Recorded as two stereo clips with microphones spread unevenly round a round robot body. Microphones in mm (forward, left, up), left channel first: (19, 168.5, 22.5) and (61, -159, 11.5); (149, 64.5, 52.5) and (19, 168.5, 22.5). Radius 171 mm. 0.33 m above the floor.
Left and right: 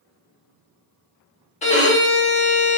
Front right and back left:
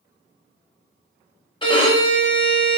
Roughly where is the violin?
Ahead left.